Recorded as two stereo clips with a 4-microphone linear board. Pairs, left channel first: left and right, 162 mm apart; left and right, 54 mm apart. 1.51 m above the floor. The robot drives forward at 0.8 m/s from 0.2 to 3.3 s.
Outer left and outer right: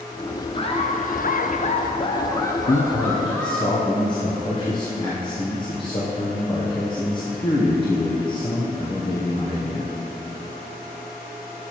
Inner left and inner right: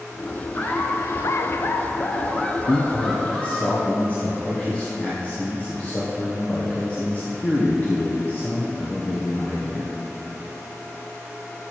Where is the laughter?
30° left (ahead or behind), 0.8 m; by 3.7 s 15° left (ahead or behind), 1.7 m.